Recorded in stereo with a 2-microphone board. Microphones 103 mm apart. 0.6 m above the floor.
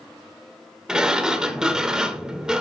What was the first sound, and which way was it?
A sliding door, 5° right (ahead or behind).